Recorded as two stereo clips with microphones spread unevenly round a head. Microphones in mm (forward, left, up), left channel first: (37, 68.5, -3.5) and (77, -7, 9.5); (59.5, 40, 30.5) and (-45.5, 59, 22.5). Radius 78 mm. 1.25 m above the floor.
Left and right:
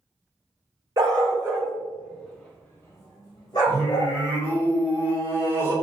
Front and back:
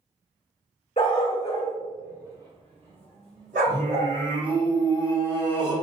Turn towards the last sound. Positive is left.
turn(degrees=-135)